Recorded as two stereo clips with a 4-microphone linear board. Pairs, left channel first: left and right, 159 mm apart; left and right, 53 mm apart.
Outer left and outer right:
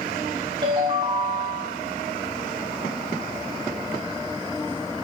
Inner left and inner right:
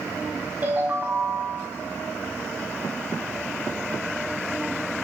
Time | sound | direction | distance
0.6 | a ringtone | 35° right (ahead or behind) | 8 m